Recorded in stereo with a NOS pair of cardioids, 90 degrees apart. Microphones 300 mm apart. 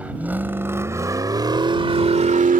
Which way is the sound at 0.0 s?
5° right.